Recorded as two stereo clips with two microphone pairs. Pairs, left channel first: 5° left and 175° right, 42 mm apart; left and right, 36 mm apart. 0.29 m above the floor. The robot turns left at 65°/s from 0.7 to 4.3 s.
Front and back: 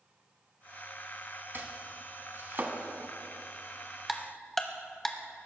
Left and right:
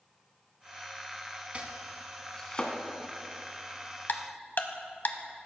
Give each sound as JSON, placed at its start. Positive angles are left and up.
{"t": 1.5, "sound": "chopping", "azimuth_deg": -140, "distance_m": 1.2}
{"t": 4.1, "sound": "ticking", "azimuth_deg": 100, "distance_m": 0.9}